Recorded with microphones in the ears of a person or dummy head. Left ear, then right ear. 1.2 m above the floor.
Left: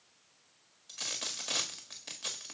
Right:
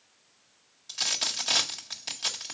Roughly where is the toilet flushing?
I don't hear a toilet flushing.